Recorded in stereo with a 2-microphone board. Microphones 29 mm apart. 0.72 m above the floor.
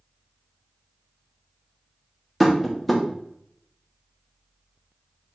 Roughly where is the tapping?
Centre.